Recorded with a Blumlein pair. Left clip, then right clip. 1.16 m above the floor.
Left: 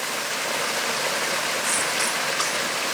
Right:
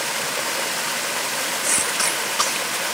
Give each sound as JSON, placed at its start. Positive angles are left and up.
{"t": 1.6, "sound": "a cough", "azimuth_deg": -15}